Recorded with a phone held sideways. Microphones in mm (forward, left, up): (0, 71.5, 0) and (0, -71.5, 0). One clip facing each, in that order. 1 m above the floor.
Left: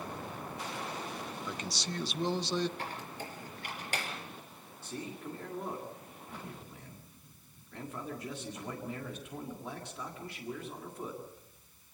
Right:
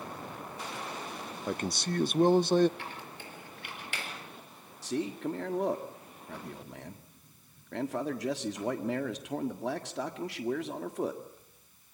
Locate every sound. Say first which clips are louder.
1.5 s a man speaking: right 11 dB; 50° right (ahead or behind), 0.5 m
2.8 s a squeak: left 2 dB; 40° left (ahead or behind), 5 m
4.8 s a man speaking: right 9 dB; 85° right, 1.6 m